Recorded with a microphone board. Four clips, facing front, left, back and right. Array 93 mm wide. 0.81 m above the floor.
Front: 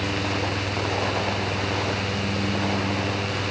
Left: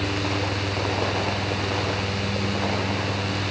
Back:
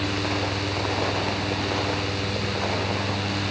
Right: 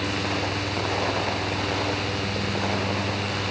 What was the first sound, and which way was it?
Only background noise.